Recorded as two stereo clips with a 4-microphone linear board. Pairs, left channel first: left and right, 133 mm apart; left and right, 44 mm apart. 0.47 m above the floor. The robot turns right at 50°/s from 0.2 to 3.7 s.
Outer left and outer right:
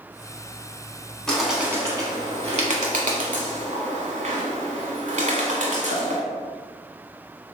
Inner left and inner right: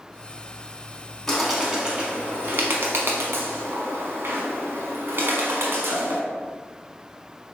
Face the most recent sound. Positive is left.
turn(degrees=-65)  # may be behind; listen again after turning